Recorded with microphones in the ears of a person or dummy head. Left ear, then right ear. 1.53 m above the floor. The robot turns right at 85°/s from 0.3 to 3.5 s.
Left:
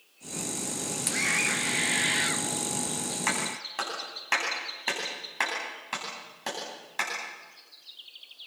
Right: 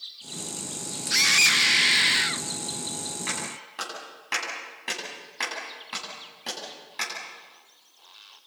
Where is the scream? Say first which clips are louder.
Right 8 dB; 115° right, 1.3 m; by 2.5 s straight ahead, 1.3 m.